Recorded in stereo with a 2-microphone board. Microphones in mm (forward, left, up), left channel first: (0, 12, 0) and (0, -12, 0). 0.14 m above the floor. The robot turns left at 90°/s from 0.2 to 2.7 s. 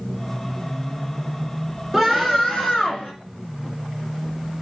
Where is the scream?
Straight behind, 1.8 m; by 3.1 s 110° left, 1.8 m.